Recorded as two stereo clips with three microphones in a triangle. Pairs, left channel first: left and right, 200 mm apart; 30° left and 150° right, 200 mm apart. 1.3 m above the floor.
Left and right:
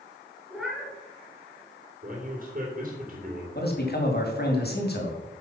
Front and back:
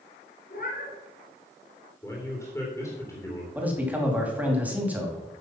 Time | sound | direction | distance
0.5 | a cat meowing | straight ahead | 2.5 m
2.0 | a man speaking | 45° right | 3 m
3.5 | a man speaking | 130° left | 2.5 m